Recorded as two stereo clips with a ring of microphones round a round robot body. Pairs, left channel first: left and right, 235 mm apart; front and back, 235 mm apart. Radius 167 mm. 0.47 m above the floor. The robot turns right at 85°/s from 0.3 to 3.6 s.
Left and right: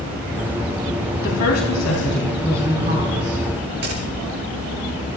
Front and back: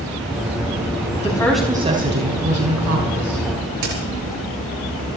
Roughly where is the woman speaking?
Ahead left.